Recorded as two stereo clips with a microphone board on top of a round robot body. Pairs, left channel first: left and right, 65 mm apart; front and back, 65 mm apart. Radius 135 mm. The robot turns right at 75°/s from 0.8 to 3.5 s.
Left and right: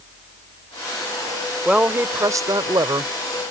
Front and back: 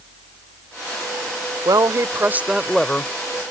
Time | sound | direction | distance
1.6 | a woman speaking | 170° right | ?